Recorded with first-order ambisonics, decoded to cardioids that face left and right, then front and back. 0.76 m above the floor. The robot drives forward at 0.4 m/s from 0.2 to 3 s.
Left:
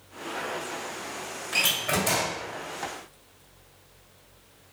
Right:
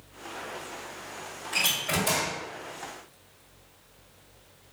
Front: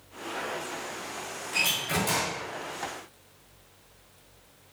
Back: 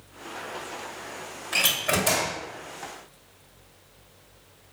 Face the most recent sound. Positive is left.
turn(degrees=170)